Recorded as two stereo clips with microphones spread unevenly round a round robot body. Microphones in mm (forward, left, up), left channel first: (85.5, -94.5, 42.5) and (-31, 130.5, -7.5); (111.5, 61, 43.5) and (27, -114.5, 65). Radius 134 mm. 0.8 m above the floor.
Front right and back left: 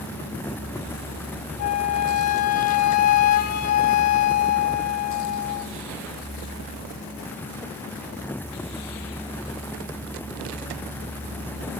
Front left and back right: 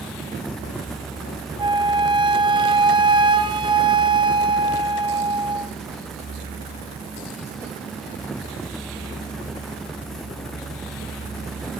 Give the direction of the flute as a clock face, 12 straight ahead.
2 o'clock.